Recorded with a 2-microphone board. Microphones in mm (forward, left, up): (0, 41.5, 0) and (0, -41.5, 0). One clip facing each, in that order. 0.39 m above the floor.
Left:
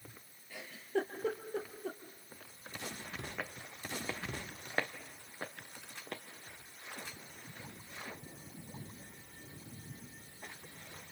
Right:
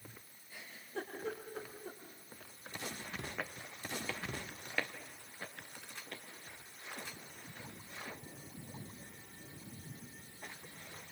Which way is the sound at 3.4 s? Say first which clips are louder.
Even; centre (ahead or behind).